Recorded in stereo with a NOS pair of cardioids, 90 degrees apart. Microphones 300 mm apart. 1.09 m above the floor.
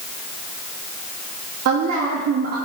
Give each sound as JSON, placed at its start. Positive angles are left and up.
{"t": 1.6, "sound": "a woman speaking", "azimuth_deg": -55, "distance_m": 2.0}